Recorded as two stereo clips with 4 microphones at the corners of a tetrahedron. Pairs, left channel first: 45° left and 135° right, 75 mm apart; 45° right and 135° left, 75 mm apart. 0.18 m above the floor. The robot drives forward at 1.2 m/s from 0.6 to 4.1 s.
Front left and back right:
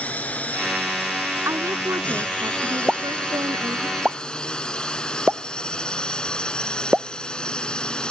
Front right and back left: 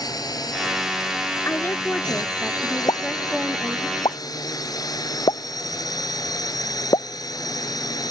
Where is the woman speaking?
95° right; by 3.9 s 145° right.